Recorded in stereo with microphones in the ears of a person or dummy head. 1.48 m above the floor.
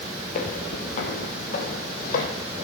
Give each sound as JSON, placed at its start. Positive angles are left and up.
{"t": 0.3, "sound": "footsteps", "side_deg": 45, "distance_m": 2.5}